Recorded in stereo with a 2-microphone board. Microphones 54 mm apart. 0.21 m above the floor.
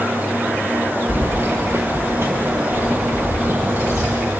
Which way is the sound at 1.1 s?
55° right (ahead or behind).